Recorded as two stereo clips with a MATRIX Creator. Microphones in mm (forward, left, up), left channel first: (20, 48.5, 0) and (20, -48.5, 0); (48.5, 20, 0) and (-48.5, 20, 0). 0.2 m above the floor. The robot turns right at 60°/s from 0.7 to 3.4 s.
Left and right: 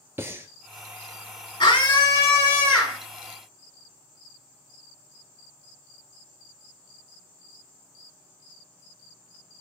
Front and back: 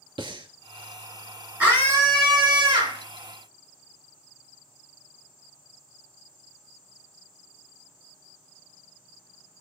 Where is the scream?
105° left, 3 m; by 3.0 s 170° right, 3 m.